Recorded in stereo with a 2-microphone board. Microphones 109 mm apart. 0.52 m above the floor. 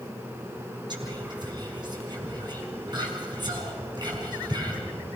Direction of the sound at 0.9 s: 40° right (ahead or behind).